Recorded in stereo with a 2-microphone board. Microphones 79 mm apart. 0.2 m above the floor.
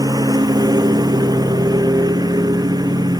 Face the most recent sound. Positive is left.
turn(degrees=-55)  # may be behind; listen again after turning